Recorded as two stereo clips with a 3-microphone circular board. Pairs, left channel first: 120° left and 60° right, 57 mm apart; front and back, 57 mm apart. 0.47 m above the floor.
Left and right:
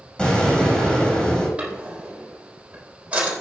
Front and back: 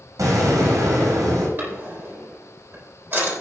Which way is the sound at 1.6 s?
130° right.